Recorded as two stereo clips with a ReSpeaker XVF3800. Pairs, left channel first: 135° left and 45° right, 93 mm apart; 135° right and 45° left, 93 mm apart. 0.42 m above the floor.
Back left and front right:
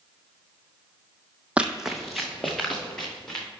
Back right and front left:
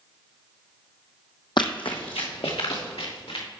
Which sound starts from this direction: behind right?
Running footsteps, at 1.6 s.